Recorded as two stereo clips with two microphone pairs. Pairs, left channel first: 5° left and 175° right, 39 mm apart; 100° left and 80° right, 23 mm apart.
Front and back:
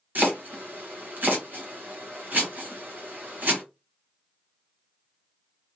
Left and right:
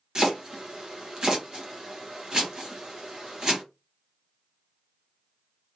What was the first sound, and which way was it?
Chopping, 140° right.